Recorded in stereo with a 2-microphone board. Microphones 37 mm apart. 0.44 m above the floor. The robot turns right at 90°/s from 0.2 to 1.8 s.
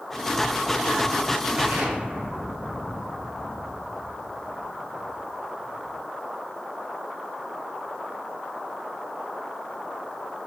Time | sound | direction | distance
1.6 | an explosion | 40° right (ahead or behind) | 3 m